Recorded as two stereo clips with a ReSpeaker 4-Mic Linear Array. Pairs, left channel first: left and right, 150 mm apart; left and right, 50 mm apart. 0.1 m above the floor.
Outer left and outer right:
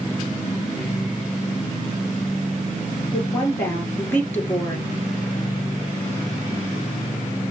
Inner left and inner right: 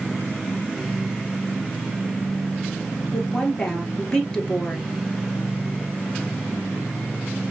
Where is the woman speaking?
15° left (ahead or behind), 2 m.